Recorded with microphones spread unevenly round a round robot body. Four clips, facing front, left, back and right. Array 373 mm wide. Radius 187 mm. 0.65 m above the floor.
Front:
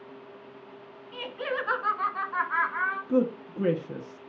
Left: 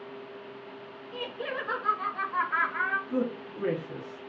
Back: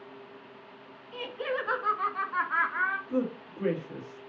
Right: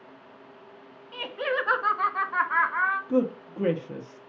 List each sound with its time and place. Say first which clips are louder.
1.1 s laughter: right 6 dB, front 1 dB; 80° right, 1.5 m; by 3.0 s 135° right, 1.4 m
3.1 s a man speaking: right 5 dB, front 5 dB; 30° right, 0.9 m